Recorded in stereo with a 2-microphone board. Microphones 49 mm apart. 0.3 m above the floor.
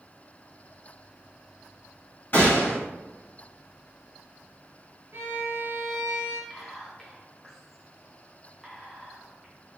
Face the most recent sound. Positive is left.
turn(degrees=0)  # may be behind; listen again after turning